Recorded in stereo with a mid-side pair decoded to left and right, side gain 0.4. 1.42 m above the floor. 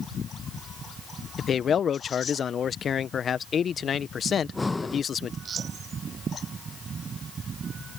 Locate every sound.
1.4 s a man speaking: 55° left
4.4 s breathing: 20° left